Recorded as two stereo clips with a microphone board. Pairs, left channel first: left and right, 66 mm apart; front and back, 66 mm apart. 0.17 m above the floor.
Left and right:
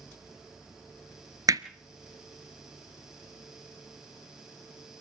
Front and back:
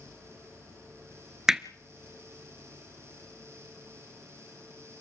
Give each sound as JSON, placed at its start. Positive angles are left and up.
{"t": 1.5, "sound": "hammering", "azimuth_deg": -100, "distance_m": 0.8}